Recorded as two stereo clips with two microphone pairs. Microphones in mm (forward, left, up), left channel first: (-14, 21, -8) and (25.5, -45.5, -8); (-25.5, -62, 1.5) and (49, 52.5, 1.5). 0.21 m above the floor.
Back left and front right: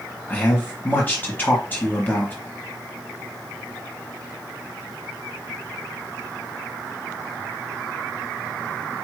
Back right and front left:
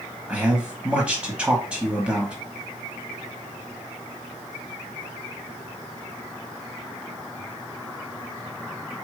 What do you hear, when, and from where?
0.3 s a man speaking: 125° left, 1.1 m